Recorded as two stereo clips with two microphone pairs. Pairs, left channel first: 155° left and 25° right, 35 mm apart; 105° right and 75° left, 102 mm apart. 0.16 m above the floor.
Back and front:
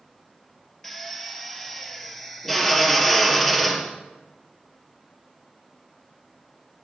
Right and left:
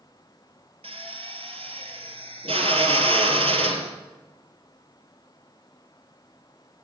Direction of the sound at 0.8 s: 75° left.